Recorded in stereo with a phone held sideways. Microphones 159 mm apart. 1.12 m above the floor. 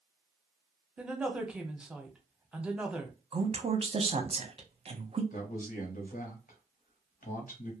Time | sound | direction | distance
1.0 | a woman speaking | 5° right (ahead or behind) | 0.6 m
3.3 | a woman speaking | 40° right (ahead or behind) | 0.6 m
5.3 | a man speaking | 60° left (ahead or behind) | 0.9 m